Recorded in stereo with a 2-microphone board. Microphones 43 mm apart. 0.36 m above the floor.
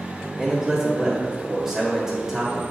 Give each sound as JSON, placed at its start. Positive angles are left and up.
{"t": 0.4, "sound": "a man speaking", "side_deg": -10, "distance_m": 1.6}